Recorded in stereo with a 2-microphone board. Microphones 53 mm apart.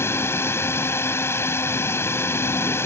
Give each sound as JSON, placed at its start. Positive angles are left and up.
{"t": 0.0, "sound": "a drone", "side_deg": 50}